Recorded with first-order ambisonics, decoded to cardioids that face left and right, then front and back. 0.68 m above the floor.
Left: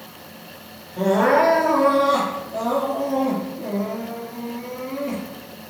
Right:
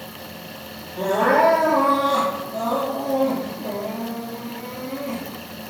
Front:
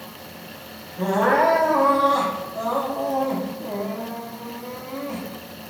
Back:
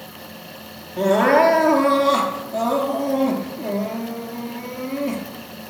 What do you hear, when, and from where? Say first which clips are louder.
1.0 s crying: even, back 4 dB; 170° left, 4 m